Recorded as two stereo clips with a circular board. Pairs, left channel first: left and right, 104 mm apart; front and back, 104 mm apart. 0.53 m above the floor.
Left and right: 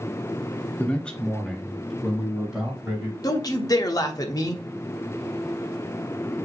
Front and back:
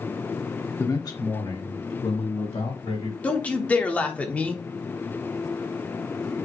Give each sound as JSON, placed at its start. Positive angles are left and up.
{"t": 0.8, "sound": "a man speaking", "azimuth_deg": 30, "distance_m": 0.9}
{"t": 3.2, "sound": "a man speaking", "azimuth_deg": 65, "distance_m": 0.8}